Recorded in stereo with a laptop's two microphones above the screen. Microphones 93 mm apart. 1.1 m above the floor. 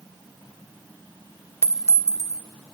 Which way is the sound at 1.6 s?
30° right (ahead or behind).